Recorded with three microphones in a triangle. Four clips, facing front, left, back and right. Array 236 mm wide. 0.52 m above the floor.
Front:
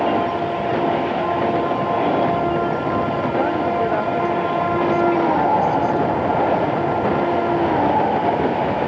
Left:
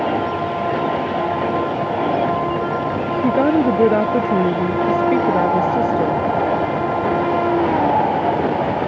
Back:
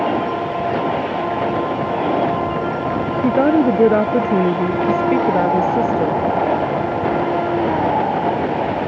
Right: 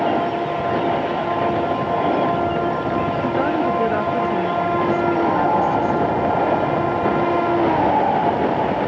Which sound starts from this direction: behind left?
A woman speaking, at 3.2 s.